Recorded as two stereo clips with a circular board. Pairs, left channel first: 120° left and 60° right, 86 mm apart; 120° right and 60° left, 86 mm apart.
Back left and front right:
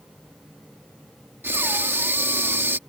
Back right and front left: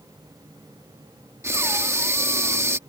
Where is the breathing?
5° left.